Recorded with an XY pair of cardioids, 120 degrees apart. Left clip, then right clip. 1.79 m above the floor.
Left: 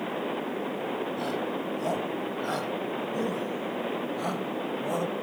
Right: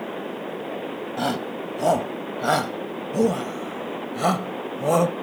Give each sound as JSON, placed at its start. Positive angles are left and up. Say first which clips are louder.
{"t": 1.2, "sound": "a shout", "louder": "right 4 dB", "azimuth_deg": -55}